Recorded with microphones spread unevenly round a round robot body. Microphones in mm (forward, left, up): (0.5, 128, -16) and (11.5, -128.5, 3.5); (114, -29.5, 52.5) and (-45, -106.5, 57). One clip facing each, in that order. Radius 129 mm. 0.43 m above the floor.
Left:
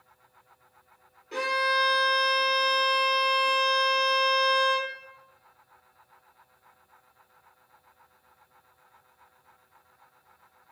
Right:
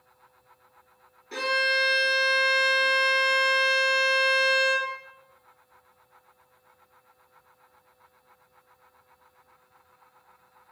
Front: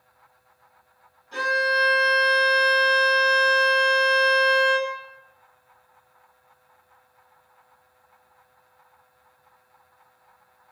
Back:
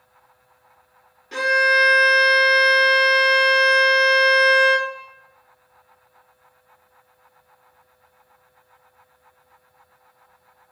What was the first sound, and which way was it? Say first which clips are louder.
A violin: right 1 dB, back 4 dB; 150° right.